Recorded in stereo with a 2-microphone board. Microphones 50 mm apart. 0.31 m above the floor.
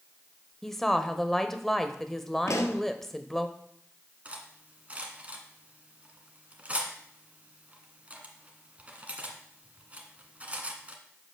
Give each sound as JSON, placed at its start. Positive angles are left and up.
{"t": 0.6, "sound": "a woman speaking", "side_deg": 5, "distance_m": 0.9}
{"t": 2.5, "sound": "a pop", "side_deg": 80, "distance_m": 1.0}
{"t": 4.2, "sound": "cutlery clinking", "side_deg": -30, "distance_m": 1.6}